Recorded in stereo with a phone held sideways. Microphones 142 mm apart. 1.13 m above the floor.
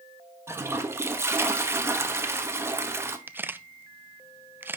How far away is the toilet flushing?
About 1.2 m.